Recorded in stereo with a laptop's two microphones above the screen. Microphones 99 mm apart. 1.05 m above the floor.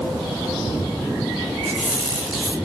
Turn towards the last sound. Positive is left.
turn(degrees=-15)  # may be behind; listen again after turning